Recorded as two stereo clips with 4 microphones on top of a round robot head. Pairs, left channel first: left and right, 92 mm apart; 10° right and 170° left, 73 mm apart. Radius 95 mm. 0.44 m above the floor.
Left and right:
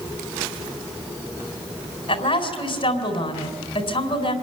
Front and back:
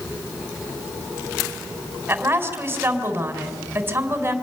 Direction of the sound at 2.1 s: 110° left.